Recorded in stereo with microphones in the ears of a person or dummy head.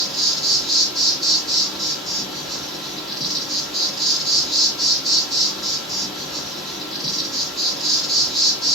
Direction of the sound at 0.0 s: Centre (ahead or behind).